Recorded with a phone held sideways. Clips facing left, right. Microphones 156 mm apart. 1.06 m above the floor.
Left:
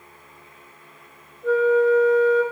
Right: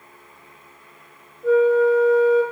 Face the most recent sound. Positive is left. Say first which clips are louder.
# right 2 dB
turn(degrees=-5)  # may be behind; listen again after turning